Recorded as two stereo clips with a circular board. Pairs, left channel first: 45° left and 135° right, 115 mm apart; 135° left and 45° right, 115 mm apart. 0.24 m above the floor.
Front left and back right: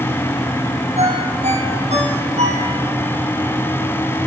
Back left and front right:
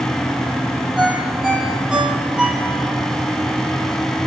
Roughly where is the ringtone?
Behind right.